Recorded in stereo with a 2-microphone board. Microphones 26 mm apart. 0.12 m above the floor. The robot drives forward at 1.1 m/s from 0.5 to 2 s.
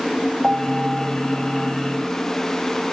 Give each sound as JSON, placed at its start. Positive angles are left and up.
{"t": 0.4, "sound": "a piano", "side_deg": -35}